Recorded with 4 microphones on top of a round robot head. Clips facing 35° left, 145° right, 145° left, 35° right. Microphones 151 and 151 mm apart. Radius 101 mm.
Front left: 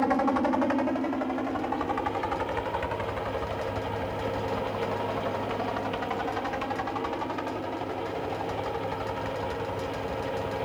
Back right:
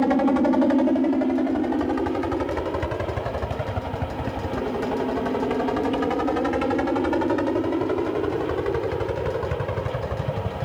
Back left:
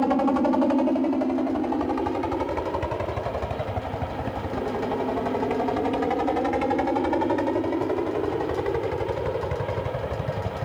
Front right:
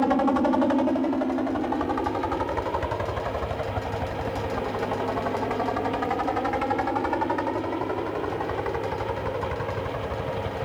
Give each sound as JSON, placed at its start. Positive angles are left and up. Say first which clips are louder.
{"t": 0.0, "sound": "a helicopter", "louder": "back right 6 dB, even", "azimuth_deg": -130}